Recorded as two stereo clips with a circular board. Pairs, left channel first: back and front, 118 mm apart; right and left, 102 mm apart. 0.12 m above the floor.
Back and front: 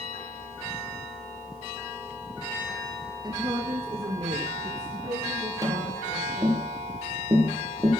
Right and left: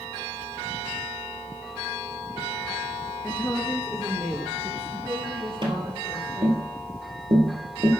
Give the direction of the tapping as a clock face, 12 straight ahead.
10 o'clock.